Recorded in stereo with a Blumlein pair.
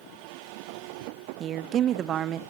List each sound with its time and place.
1.4 s a woman speaking: 30° right, 0.8 m